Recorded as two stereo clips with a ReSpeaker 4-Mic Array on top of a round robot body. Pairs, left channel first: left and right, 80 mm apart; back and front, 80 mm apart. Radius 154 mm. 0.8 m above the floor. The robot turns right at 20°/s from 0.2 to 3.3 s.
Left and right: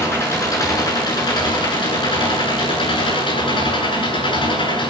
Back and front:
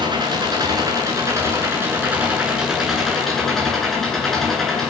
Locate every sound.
0.0 s an engine running: 30° left, 10 m; by 4.9 s 95° left, 10 m